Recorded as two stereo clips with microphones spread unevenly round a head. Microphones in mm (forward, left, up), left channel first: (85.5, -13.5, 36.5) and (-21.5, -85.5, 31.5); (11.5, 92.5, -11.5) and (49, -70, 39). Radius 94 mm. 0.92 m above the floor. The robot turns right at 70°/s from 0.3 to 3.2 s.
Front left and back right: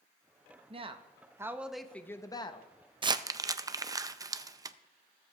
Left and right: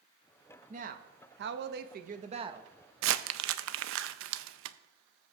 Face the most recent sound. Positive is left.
turn(degrees=-85)